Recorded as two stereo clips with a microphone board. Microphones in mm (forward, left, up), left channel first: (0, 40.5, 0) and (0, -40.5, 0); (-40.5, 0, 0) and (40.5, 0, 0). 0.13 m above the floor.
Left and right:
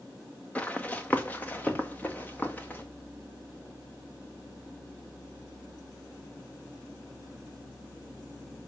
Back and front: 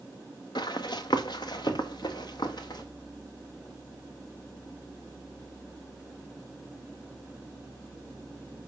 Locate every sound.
0.6 s running footsteps: 160° left, 1.1 m; by 2.8 s 155° left, 2.5 m